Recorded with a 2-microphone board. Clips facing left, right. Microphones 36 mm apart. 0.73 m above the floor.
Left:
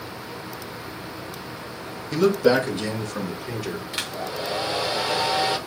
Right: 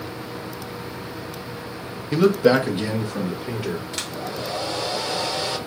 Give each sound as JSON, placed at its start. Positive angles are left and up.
{"t": 2.1, "sound": "a man speaking", "side_deg": -20, "distance_m": 1.1}
{"t": 3.9, "sound": "a hair dryer", "side_deg": 20, "distance_m": 0.9}